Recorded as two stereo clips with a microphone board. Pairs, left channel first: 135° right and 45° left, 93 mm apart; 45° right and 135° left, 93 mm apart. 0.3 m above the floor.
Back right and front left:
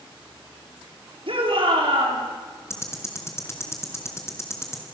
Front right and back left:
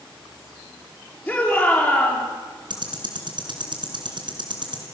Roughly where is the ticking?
Behind.